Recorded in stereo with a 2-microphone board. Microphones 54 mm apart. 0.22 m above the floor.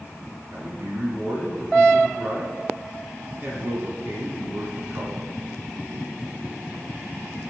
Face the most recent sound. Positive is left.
turn(degrees=-45)  # may be behind; listen again after turning